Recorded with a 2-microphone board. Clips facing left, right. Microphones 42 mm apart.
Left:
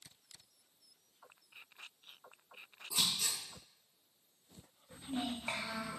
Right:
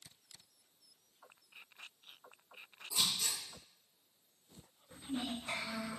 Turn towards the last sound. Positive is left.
turn(degrees=60)  # may be behind; listen again after turning